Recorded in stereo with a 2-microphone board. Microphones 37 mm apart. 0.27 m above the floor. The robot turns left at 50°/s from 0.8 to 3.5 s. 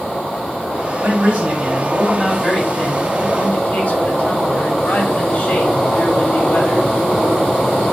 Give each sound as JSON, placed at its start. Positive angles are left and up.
{"t": 1.0, "sound": "a man speaking", "azimuth_deg": -125, "distance_m": 3.0}